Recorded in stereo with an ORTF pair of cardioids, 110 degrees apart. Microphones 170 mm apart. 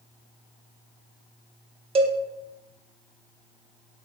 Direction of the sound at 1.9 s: 35° right.